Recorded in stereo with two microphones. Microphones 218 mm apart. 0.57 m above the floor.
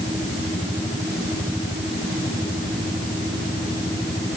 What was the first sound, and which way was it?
Only background noise.